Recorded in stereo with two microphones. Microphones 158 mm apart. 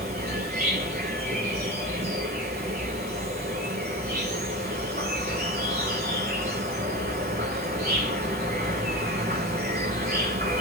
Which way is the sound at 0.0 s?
90° right.